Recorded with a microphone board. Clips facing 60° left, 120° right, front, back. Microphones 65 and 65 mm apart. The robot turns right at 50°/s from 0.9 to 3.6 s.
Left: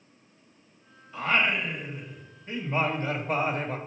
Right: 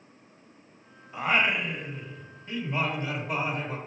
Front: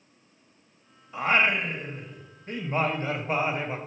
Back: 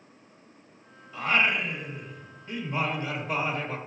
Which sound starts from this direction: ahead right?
Singing, at 1.1 s.